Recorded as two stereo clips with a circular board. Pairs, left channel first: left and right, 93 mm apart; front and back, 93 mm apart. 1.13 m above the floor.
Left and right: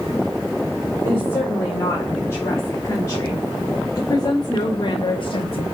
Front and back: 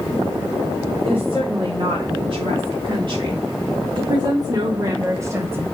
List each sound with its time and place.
1.1 s a woman speaking: 165° left, 3 m; by 5.6 s 115° left, 1.3 m